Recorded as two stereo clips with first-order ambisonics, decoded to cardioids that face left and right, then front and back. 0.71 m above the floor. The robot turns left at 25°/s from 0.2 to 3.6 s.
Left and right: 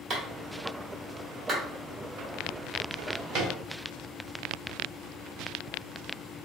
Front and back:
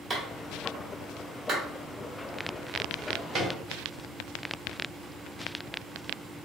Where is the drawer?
115° right, 1.1 m; by 3.5 s 130° right, 1.1 m.